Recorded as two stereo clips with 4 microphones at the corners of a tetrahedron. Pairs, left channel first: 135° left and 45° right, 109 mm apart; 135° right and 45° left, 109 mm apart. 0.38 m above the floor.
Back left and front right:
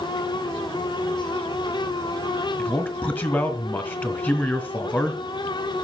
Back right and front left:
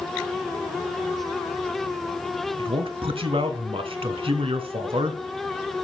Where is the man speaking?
65° left, 1.5 m.